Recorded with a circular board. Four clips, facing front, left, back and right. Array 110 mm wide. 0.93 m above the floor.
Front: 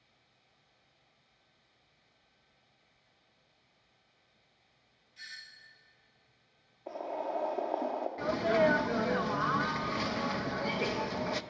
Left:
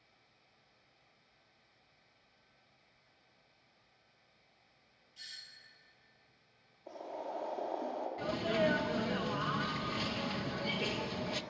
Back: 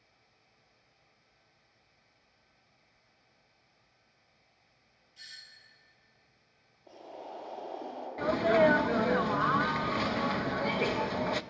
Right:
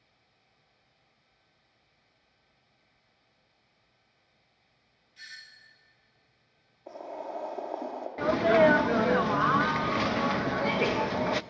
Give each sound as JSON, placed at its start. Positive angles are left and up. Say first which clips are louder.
{"t": 5.2, "sound": "a doorbell", "louder": "right 8 dB, front 4 dB", "azimuth_deg": -60, "distance_m": 1.5}
{"t": 6.9, "sound": "boiling", "louder": "right 4 dB, front 9 dB", "azimuth_deg": -20, "distance_m": 2.5}
{"t": 8.2, "sound": "a sneeze", "louder": "right 12 dB, back 4 dB", "azimuth_deg": -110, "distance_m": 0.6}